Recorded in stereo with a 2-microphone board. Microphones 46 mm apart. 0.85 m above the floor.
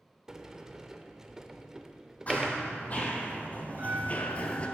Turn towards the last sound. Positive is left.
turn(degrees=-55)  # may be behind; listen again after turning